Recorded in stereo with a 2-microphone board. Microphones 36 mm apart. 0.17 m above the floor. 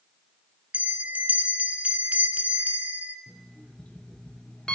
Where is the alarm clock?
25° left (ahead or behind), 1.2 m.